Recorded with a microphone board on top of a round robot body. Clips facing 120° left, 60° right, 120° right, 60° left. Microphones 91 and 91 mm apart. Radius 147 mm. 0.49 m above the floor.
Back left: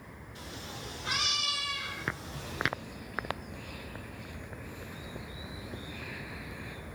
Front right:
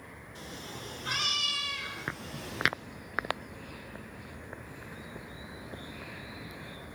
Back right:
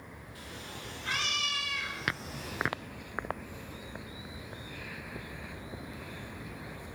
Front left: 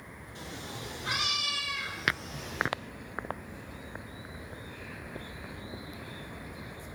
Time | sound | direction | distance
0.3 | a cat meowing | 5° right | 6 m